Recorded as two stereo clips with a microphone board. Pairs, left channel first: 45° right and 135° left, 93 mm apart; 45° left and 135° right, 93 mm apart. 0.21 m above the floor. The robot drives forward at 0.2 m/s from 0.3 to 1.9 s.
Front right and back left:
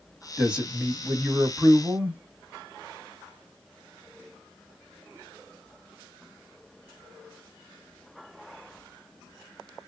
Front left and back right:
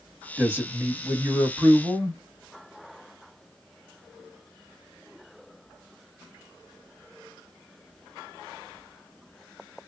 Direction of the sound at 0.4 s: 155° right.